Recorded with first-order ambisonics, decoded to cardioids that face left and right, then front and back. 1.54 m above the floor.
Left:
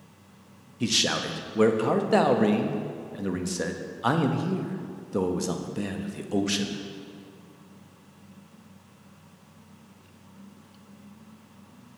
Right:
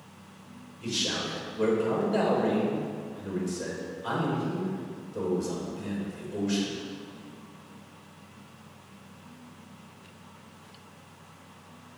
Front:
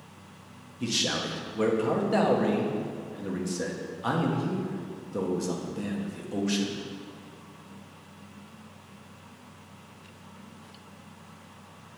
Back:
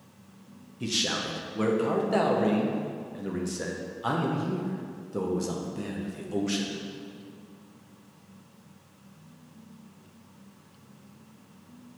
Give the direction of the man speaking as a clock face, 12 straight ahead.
9 o'clock.